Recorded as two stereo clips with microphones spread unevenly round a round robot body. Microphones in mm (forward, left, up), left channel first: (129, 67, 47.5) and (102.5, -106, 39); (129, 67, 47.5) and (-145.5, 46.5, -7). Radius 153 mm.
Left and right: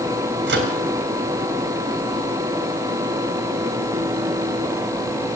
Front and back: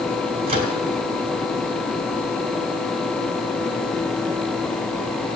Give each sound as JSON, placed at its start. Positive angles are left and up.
{"t": 0.5, "sound": "a microwave", "azimuth_deg": -105, "distance_m": 1.7}